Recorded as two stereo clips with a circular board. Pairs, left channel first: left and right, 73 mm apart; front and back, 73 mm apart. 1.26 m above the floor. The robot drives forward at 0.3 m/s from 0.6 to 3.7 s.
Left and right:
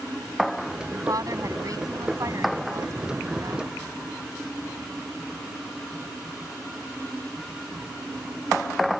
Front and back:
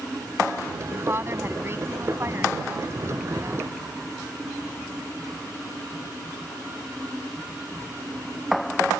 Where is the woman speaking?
125° right; by 3.8 s 130° right.